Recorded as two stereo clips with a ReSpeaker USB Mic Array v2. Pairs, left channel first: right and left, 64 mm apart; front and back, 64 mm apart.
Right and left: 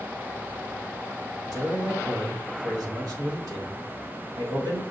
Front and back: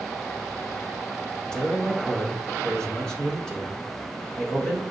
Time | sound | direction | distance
1.5 | a man speaking | 75° left | 1.4 m